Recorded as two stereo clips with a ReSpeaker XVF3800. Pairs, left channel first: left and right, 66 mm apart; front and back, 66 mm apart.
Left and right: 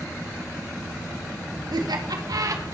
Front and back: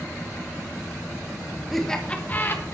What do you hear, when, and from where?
1.7 s laughter: 90° right, 1.5 m; by 2.8 s 50° right, 1.8 m